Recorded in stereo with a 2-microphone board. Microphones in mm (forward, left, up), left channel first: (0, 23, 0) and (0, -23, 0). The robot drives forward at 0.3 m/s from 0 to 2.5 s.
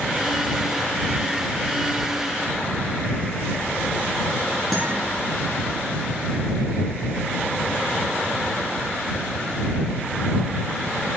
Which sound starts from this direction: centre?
A guitar, at 4.7 s.